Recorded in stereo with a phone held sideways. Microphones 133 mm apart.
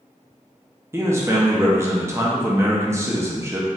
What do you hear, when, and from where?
0.9 s a man speaking: 20° right (ahead or behind), 0.7 m